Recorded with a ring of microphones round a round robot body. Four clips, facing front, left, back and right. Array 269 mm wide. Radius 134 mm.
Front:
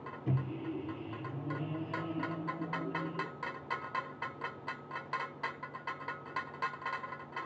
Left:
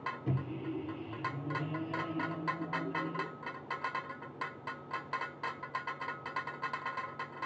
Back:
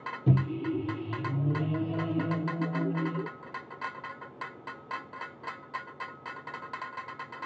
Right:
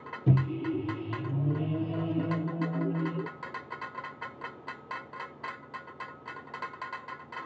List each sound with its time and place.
0.3 s a microwave: 135° right, 0.6 m